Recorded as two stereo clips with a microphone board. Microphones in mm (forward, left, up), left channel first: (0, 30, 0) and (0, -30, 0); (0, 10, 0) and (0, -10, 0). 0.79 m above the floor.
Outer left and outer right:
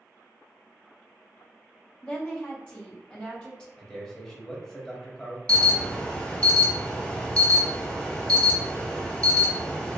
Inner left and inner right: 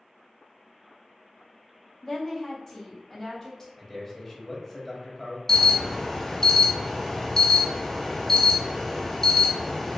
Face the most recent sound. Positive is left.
turn(degrees=20)  # may be behind; listen again after turning